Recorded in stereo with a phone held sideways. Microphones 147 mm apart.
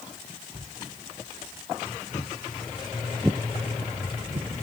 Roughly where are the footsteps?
Left.